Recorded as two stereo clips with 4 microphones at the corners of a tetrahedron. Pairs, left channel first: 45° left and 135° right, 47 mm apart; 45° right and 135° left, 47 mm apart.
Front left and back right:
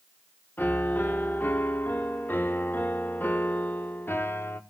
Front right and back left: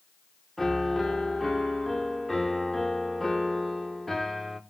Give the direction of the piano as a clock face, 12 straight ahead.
11 o'clock.